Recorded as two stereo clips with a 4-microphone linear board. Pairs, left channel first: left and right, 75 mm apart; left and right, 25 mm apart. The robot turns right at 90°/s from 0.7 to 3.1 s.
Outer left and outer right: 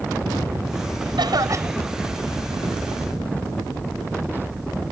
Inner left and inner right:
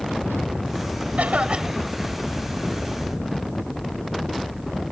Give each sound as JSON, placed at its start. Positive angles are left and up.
{"t": 1.2, "sound": "a cough", "azimuth_deg": -75}